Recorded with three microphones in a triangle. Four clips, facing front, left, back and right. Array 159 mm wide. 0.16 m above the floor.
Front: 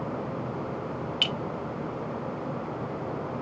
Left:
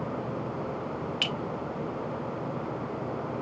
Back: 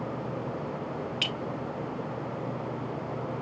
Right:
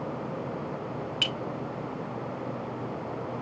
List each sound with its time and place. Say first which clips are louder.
1.2 s a clink: even, front 2 dB; 70° left, 1.4 m